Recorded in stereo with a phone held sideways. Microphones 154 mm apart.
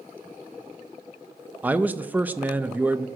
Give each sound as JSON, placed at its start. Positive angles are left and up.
{"t": 1.6, "sound": "a man speaking", "side_deg": -10, "distance_m": 0.5}